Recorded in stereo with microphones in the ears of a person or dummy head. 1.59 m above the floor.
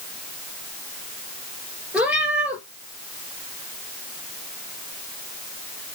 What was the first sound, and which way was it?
A cat meowing, 5° right (ahead or behind).